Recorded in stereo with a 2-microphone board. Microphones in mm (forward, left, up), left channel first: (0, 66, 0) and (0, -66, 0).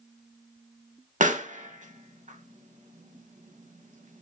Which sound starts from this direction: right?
A pop, at 1.2 s.